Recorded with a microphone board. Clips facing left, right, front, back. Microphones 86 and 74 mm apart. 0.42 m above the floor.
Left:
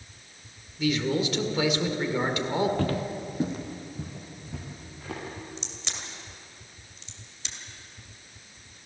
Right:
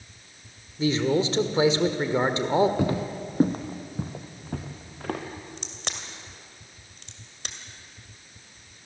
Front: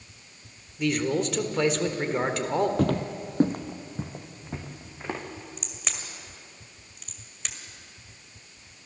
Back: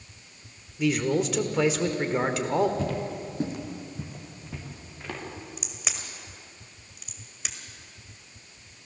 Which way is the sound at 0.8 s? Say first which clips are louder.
Right 3 dB, back 1 dB; 95° right.